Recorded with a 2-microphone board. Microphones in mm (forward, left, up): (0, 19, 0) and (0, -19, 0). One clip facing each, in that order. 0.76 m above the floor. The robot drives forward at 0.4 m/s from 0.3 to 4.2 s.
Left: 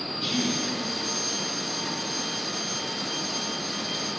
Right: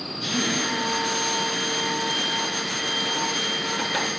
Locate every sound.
0.1 s a man speaking: 10° left (ahead or behind), 2.5 m